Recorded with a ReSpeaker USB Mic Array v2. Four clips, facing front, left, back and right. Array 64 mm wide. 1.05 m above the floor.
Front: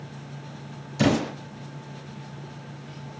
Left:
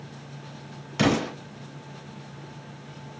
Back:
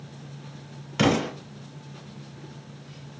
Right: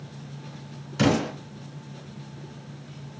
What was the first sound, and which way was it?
An explosion, 150° left.